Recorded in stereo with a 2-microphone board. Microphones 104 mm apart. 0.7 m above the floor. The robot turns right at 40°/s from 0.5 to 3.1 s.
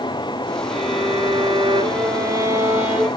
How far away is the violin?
About 6 m.